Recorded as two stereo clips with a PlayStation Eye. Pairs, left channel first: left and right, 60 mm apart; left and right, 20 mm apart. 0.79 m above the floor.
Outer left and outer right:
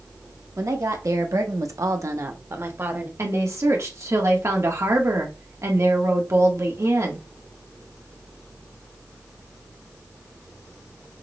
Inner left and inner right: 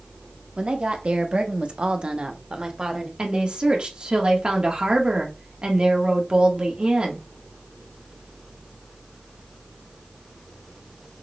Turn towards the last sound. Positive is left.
turn(degrees=-55)  # may be behind; listen again after turning